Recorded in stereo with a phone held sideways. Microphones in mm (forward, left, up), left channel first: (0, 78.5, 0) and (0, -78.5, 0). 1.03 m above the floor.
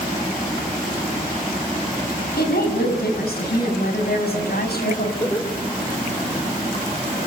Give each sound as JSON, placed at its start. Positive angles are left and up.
{"t": 2.4, "sound": "a woman speaking", "side_deg": 90, "distance_m": 7.5}
{"t": 5.2, "sound": "laughter", "side_deg": 25, "distance_m": 4.0}